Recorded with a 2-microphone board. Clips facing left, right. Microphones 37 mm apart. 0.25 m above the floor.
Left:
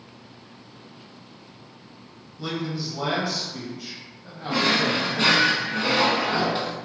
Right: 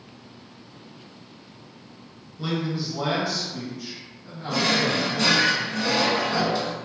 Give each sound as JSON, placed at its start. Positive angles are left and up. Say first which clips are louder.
{"t": 2.4, "sound": "a man speaking", "louder": "right 2 dB", "side_deg": -15, "distance_m": 1.5}
{"t": 4.5, "sound": "a drawer", "louder": "left 1 dB", "side_deg": 35, "distance_m": 0.5}